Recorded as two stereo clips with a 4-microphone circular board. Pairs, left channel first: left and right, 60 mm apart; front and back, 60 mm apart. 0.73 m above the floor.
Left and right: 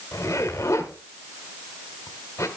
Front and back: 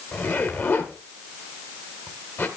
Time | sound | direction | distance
0.1 | a zipper | 50° left | 1.5 m